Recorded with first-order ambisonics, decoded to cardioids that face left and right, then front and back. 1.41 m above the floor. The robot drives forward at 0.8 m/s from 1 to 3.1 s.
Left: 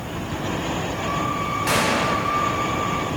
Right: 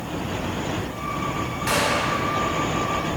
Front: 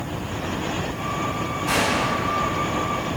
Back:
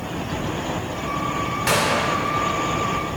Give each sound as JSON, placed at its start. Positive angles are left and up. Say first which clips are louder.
{"t": 1.7, "sound": "a gunshot", "louder": "even, back 1 dB", "azimuth_deg": 175, "distance_m": 1.7}